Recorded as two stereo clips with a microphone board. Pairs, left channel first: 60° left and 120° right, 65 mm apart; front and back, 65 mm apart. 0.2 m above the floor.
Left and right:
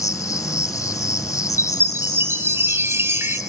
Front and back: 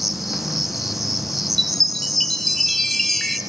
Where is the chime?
85° right, 2 m.